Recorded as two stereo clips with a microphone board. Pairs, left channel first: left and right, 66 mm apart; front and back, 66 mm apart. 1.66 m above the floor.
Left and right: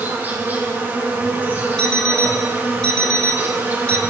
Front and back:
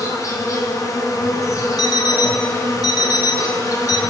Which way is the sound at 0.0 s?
30° right.